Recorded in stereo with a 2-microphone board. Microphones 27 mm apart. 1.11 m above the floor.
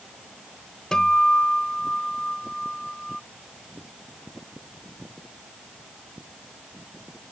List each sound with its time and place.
0.9 s a guitar: 25° left (ahead or behind)